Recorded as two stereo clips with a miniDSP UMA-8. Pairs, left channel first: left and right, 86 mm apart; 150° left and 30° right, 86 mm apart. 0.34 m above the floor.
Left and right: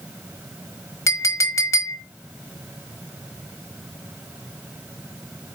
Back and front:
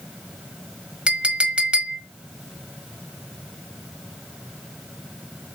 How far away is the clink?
About 1.2 m.